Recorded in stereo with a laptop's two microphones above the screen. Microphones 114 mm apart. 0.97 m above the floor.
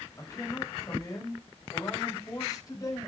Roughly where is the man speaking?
Left.